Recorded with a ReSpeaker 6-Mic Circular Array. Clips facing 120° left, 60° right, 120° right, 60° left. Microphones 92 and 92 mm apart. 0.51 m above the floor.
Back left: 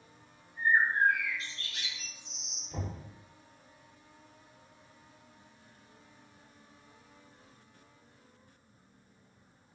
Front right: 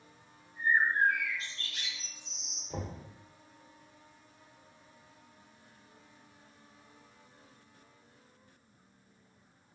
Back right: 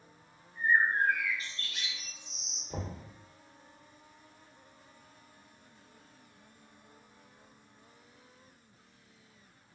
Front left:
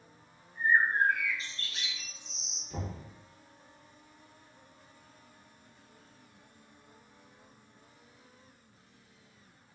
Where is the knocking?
90° right, 0.9 m.